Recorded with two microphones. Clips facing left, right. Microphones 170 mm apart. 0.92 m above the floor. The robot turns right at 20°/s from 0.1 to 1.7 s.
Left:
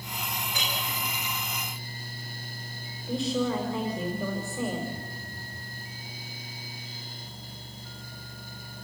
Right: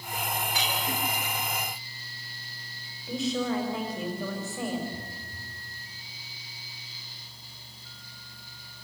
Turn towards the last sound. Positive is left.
turn(degrees=-30)  # may be behind; listen again after turning